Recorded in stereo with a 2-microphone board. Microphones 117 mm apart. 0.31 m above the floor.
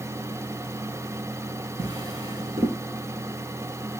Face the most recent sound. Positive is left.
turn(degrees=-35)  # may be behind; listen again after turning